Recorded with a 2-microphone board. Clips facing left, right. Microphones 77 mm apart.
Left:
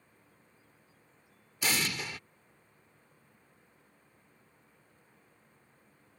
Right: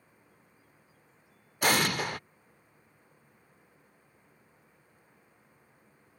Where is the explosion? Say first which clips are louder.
Right 7 dB; 55° right (ahead or behind).